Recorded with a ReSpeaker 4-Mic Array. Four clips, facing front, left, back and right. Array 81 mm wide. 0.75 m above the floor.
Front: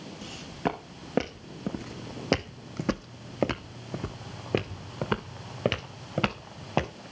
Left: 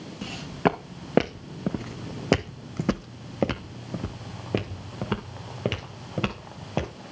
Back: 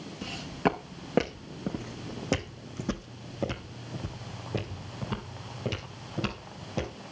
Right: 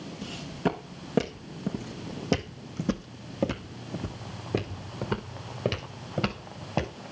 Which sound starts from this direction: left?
Footsteps, at 0.2 s.